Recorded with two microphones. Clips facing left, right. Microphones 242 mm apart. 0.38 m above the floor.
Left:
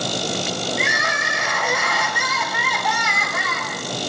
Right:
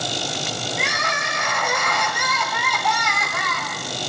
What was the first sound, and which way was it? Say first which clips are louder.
Crying: left 2 dB; 5° left (ahead or behind).